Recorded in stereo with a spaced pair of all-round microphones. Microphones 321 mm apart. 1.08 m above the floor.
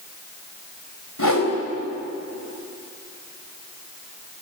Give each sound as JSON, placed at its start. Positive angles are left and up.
{"t": 1.2, "sound": "a whoosh", "side_deg": 80, "distance_m": 3.5}